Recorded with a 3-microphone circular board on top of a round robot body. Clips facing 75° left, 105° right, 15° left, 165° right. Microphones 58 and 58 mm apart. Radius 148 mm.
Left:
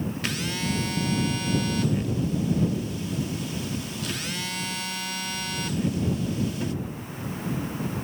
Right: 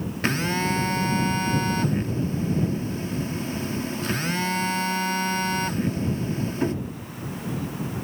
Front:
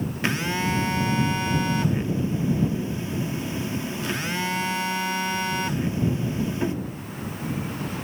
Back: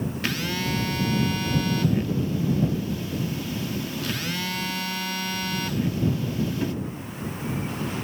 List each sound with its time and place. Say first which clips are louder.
0.2 s a phone buzzing: right 9 dB, front 5 dB; 50° right